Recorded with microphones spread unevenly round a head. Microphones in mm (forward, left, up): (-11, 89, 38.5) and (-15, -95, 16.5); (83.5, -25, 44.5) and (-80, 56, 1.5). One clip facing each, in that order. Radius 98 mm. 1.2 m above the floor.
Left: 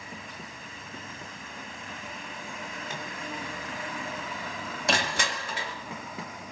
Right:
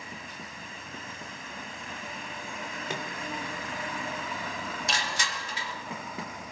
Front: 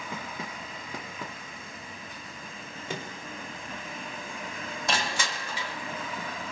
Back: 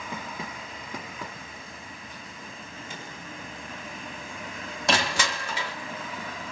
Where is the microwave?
60° right, 3 m.